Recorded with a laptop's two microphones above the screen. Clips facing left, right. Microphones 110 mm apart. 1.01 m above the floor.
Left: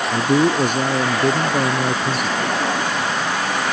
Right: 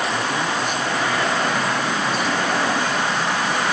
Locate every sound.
0.1 s a man speaking: 70° left (ahead or behind)